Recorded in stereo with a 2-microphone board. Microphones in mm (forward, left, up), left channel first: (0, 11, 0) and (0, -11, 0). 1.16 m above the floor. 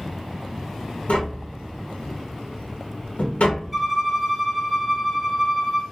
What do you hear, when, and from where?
1.1 s tapping: 70° left (ahead or behind), 0.6 m
3.7 s a violin: 10° right (ahead or behind), 0.8 m